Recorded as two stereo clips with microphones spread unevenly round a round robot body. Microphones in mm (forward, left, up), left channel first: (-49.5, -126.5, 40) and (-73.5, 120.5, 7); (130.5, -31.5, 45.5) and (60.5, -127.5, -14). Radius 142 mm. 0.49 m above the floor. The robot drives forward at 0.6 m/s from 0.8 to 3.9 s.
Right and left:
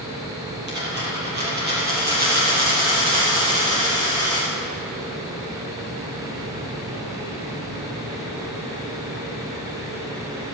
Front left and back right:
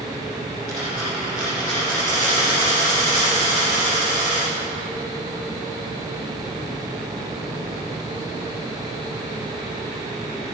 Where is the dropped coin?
145° left, 5 m; by 4.5 s 155° left, 6.5 m.